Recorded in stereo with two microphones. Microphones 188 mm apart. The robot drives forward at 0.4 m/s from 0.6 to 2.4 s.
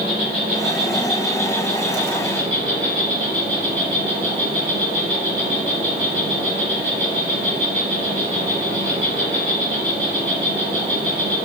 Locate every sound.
0.0 s an insect: 50° right (ahead or behind), 1.5 m; by 11.4 s 35° right (ahead or behind), 2 m